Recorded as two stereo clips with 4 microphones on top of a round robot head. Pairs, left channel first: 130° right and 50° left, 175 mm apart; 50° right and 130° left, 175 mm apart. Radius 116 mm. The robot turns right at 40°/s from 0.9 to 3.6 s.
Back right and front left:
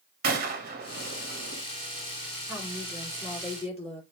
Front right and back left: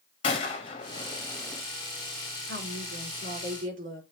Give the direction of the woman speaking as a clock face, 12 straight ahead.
8 o'clock.